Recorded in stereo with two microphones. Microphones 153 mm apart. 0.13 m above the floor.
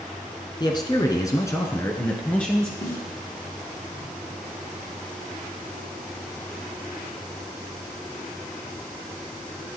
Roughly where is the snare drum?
Left.